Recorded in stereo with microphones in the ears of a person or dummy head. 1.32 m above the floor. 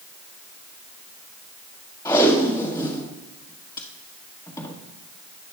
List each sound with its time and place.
2.0 s tape being pulled: 20° left (ahead or behind), 1.6 m